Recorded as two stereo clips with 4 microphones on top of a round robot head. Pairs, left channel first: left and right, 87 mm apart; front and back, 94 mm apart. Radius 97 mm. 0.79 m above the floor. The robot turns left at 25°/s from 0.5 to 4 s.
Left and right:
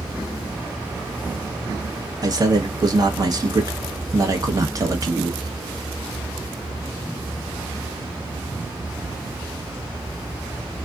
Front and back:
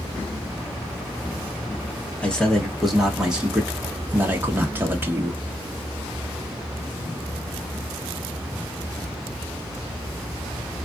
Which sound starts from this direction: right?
A man speaking, at 2.2 s.